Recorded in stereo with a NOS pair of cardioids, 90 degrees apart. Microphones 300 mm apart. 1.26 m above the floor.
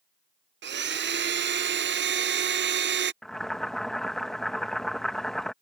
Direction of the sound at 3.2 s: Straight ahead.